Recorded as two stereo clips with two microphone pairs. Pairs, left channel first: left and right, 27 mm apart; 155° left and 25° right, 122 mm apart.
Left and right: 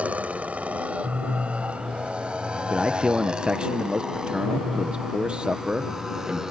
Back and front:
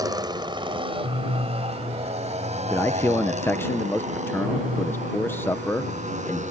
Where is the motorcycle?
80° right; by 6.5 s 20° right.